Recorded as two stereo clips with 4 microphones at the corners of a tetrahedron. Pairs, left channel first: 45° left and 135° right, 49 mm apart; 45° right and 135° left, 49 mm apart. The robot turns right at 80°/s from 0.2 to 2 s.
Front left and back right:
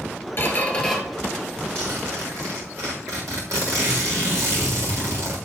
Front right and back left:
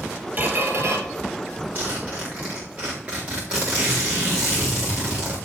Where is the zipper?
175° right, 4.5 m; by 5.4 s 155° right, 4.5 m.